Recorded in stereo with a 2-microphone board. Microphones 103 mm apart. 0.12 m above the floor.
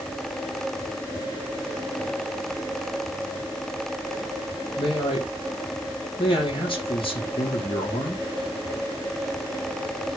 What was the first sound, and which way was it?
A man speaking, 60° left (ahead or behind).